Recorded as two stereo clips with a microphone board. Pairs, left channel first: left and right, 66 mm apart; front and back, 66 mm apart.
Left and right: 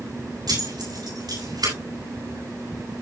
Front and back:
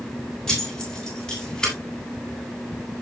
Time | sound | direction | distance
0.5 | keys jangling | 85° right | 9.5 m